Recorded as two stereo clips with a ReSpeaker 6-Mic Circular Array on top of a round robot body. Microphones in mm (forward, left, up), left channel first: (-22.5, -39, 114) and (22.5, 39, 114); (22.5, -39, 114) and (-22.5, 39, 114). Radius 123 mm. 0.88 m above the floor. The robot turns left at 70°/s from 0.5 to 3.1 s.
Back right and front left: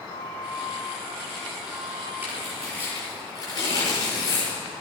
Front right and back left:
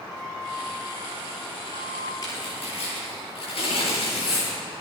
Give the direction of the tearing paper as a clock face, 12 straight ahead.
12 o'clock.